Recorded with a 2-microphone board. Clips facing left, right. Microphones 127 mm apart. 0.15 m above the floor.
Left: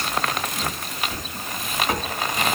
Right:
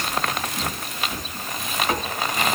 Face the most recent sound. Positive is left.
No sound to turn to.